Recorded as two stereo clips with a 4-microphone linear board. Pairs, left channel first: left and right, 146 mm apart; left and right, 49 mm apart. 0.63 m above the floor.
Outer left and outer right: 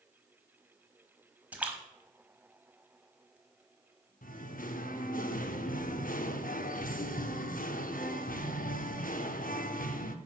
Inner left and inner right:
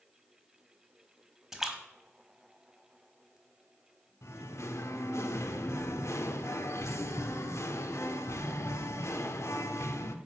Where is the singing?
70° left (ahead or behind), 0.6 m.